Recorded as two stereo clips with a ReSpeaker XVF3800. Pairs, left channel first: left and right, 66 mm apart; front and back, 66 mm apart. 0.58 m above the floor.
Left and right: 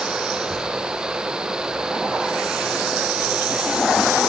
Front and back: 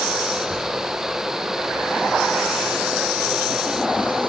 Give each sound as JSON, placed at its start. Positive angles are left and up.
{"t": 0.3, "sound": "a child speaking", "azimuth_deg": 5, "distance_m": 10.0}